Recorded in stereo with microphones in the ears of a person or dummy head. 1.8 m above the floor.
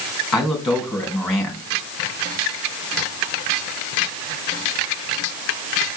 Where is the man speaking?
Centre (ahead or behind), 2.5 m.